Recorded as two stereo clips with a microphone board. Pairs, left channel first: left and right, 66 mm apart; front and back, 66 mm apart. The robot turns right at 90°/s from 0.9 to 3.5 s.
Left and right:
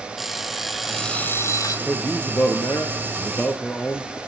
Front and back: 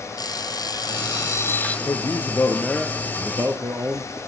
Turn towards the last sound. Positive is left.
turn(degrees=155)